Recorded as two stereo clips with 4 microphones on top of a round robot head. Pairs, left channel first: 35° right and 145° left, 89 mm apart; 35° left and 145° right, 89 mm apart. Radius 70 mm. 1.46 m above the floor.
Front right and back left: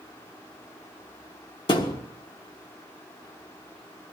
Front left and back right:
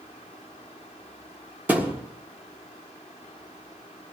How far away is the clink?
I don't hear a clink.